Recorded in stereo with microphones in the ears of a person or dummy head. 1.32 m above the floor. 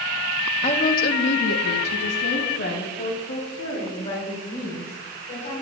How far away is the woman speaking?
About 1.4 m.